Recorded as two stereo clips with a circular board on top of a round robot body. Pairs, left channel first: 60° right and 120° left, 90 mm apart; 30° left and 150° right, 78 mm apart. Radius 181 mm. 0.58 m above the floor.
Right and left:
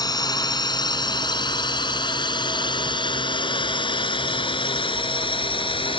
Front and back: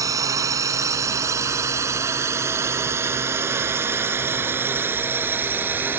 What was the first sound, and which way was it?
A drone, 105° right.